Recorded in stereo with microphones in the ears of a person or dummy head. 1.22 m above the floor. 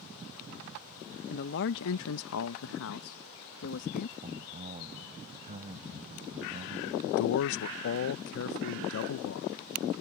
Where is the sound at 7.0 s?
65° left (ahead or behind).